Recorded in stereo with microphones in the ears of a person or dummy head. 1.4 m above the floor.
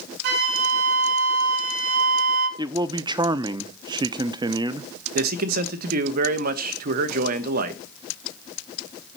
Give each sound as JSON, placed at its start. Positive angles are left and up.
{"t": 0.2, "sound": "a flute", "side_deg": -60, "distance_m": 4.5}
{"t": 2.6, "sound": "a man speaking", "side_deg": -25, "distance_m": 0.5}
{"t": 5.2, "sound": "a man speaking", "side_deg": -55, "distance_m": 1.0}